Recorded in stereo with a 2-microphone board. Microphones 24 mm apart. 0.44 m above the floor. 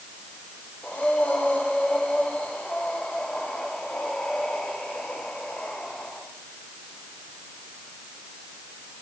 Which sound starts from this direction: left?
Breathing, at 0.8 s.